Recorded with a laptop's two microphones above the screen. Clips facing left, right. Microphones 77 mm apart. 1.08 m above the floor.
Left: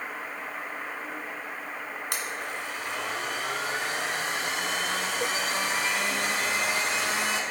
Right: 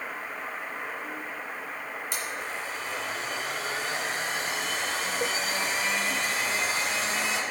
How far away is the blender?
About 2 m.